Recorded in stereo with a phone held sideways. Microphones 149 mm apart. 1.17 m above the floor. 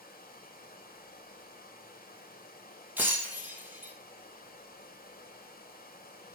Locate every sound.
0.0 s running water: 80° left, 1.7 m
3.0 s breaking glass: 10° right (ahead or behind), 1.9 m